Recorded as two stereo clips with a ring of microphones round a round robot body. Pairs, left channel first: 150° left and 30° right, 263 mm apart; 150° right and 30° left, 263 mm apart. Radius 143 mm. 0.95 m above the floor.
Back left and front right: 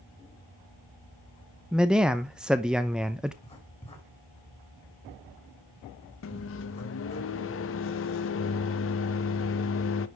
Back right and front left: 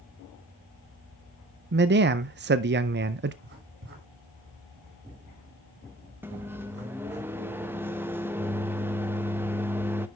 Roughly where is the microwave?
Left.